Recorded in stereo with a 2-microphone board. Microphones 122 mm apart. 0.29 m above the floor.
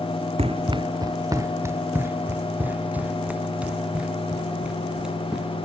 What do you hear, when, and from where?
0.4 s running footsteps: 55° right (ahead or behind); by 5.7 s 5° right (ahead or behind)